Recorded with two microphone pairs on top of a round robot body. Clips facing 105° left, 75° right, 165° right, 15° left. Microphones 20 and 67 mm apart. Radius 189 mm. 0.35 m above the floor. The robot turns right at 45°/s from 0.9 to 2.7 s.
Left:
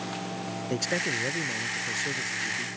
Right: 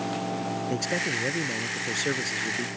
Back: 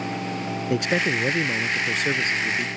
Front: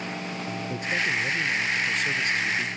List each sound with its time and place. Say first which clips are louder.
0.7 s a man speaking: left 1 dB, back 5 dB; 175° right; by 2.7 s 95° right